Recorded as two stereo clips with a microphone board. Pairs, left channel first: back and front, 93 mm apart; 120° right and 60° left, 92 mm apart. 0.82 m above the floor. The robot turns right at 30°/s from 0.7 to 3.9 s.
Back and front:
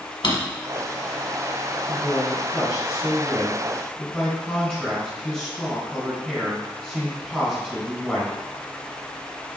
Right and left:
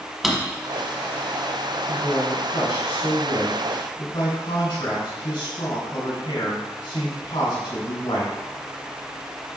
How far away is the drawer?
About 1.3 m.